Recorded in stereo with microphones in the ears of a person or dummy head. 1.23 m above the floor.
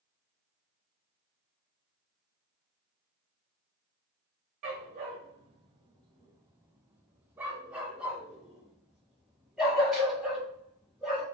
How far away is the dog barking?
About 1.4 m.